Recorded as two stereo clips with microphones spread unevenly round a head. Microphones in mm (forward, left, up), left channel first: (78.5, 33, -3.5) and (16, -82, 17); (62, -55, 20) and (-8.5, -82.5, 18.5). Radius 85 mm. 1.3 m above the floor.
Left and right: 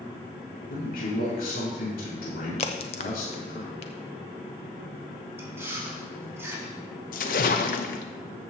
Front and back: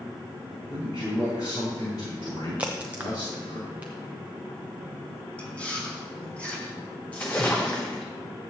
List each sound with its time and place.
0.7 s a man speaking: 80° left, 4 m
2.6 s a crack: 120° left, 0.5 m
5.4 s chewing: 50° right, 3 m
7.1 s a splash: 100° left, 0.6 m